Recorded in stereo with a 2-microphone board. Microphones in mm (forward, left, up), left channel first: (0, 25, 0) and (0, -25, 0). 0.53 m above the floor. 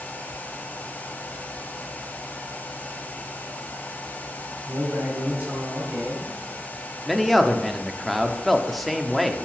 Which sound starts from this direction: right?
A man speaking, at 4.7 s.